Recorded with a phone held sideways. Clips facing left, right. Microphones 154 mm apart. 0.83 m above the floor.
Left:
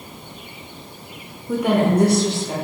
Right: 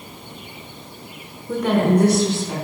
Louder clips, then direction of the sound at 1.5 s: Even; centre (ahead or behind).